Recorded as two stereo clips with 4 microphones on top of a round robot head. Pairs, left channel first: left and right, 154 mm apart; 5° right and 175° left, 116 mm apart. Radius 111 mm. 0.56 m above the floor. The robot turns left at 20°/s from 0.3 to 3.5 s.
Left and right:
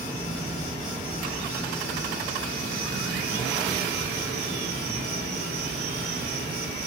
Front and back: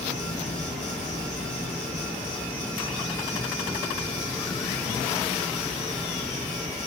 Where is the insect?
10° right, 1.1 m; by 6.9 s 75° right, 1.1 m.